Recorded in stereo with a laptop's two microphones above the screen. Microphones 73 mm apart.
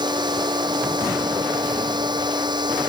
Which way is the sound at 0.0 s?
70° right (ahead or behind).